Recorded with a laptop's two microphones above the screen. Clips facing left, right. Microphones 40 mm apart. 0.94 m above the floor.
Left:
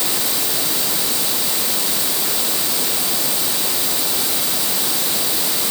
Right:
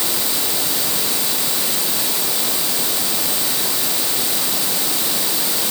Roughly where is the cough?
No cough in this recording.